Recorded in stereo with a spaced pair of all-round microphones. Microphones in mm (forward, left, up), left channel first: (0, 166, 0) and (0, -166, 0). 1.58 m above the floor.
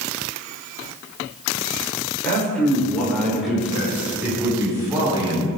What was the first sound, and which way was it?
A man speaking, 5° left (ahead or behind).